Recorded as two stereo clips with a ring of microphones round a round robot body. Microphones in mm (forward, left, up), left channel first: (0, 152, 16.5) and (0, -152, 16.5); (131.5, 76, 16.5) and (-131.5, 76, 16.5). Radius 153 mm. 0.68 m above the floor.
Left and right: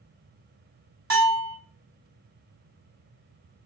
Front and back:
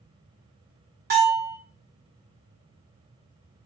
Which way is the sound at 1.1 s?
130° right.